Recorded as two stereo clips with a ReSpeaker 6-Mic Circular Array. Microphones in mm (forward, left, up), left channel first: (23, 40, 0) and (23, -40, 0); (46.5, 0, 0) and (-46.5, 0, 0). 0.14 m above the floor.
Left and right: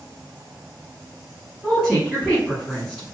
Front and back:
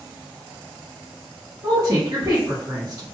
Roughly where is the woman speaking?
Behind.